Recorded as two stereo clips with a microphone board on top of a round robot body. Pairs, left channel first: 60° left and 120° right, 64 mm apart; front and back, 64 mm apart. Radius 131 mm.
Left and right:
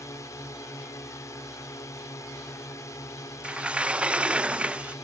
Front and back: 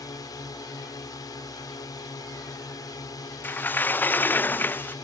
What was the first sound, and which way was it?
A drone, 20° left.